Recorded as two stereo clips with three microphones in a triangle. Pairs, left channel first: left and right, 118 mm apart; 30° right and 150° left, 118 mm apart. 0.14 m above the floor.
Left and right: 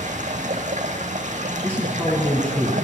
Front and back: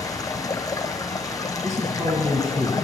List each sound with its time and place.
0.0 s running water: 95° right, 1.0 m
1.6 s a man speaking: 155° left, 1.3 m